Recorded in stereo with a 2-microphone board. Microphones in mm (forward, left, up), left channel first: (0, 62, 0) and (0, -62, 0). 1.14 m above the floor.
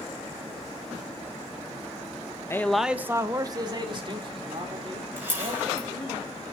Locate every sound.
2.5 s a man speaking: 20° left (ahead or behind), 0.9 m; by 6.2 s 50° right (ahead or behind), 5 m
5.2 s a camera shutter: 15° right (ahead or behind), 6 m